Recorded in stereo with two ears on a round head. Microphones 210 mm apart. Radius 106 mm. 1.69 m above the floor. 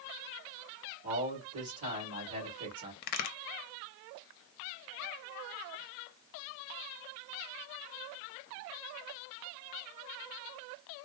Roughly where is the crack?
Left.